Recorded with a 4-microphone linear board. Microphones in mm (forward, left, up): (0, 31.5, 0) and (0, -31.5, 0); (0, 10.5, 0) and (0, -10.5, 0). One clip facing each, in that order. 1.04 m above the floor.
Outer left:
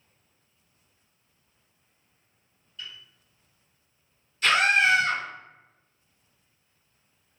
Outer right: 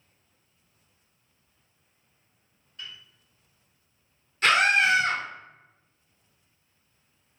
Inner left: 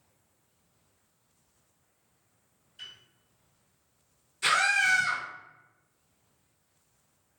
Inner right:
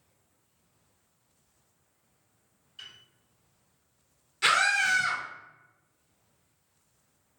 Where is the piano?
45° right (ahead or behind), 1.6 m.